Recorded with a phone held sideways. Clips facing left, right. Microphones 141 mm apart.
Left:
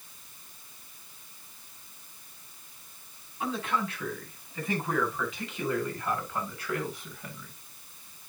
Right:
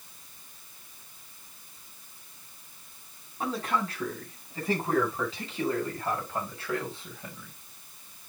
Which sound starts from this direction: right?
A man speaking, at 3.4 s.